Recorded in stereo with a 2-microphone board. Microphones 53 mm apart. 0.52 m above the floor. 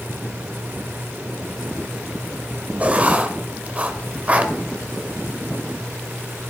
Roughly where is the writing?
Right.